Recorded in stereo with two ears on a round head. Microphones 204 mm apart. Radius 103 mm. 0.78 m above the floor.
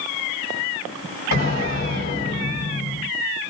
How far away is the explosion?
About 1.7 m.